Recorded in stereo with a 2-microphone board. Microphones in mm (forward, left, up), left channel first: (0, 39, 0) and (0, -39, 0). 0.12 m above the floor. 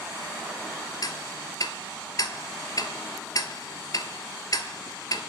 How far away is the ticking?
About 0.6 m.